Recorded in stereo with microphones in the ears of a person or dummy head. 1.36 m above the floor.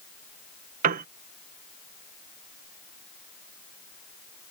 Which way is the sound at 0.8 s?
45° right (ahead or behind).